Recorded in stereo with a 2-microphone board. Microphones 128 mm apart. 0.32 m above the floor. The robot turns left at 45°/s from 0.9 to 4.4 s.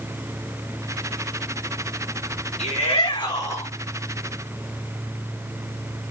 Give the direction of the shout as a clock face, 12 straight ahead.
10 o'clock.